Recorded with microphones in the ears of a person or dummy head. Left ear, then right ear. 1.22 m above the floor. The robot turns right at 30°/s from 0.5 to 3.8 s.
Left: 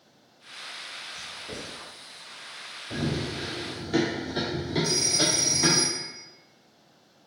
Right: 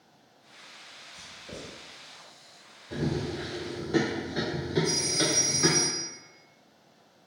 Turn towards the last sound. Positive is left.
turn(degrees=30)  # may be behind; listen again after turning